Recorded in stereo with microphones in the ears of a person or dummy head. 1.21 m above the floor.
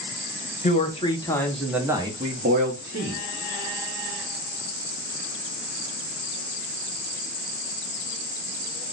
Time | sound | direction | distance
0.6 | a man speaking | 35° left (ahead or behind) | 0.9 m